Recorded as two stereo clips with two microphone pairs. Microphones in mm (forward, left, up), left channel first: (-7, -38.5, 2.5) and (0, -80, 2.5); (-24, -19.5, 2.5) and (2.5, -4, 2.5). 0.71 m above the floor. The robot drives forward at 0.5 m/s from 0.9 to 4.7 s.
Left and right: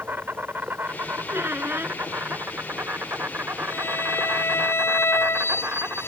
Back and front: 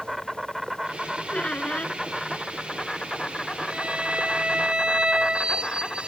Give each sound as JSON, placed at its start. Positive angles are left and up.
{"t": 0.0, "sound": "an insect", "azimuth_deg": -55}
{"t": 1.3, "sound": "a squeak", "azimuth_deg": -105}
{"t": 3.7, "sound": "a violin", "azimuth_deg": 80}